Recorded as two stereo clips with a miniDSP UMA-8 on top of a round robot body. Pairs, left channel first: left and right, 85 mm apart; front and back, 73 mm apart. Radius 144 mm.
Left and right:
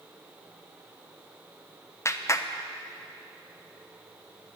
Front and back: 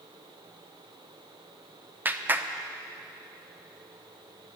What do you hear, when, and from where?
2.0 s a clap: 130° left, 1.1 m